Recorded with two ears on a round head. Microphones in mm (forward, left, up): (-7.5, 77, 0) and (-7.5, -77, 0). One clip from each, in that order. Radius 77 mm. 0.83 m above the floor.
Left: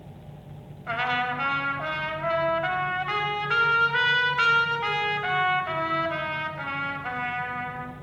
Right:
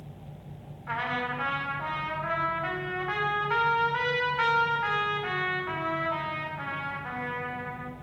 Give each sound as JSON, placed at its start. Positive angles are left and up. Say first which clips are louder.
{"t": 0.9, "sound": "a trumpet", "louder": "left 4 dB", "side_deg": 80, "distance_m": 5.0}